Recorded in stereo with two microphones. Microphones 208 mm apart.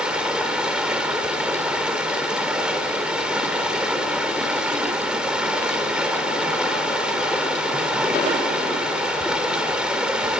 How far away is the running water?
About 3 m.